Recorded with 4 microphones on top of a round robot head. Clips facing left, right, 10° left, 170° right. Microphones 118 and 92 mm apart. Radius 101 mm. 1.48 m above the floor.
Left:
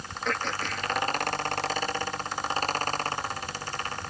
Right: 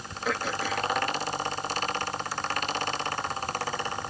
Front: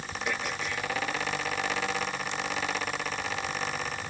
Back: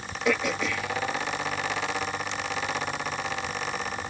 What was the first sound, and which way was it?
Throat clearing, 175° right.